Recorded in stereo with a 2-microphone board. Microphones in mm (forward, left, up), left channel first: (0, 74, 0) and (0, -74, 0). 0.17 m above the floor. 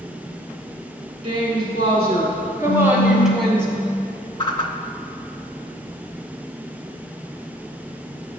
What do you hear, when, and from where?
1.2 s a woman speaking: 50° right (ahead or behind), 1.5 m; by 3.7 s 10° left (ahead or behind), 1.1 m
2.7 s a phone buzzing: 15° left (ahead or behind), 1.5 m
4.4 s a whoosh: 35° left (ahead or behind), 0.5 m